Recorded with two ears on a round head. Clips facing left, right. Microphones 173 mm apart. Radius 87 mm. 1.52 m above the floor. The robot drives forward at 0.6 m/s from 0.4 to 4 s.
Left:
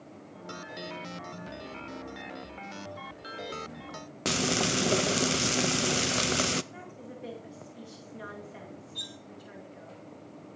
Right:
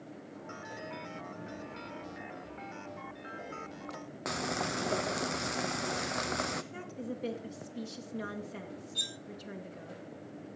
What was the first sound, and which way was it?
Frying, 40° left (ahead or behind).